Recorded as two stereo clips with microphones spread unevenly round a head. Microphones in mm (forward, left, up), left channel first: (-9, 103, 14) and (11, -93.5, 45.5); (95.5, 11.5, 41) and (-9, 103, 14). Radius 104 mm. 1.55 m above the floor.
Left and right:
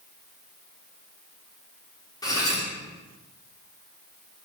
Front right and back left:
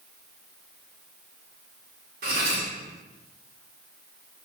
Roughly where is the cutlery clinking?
Behind.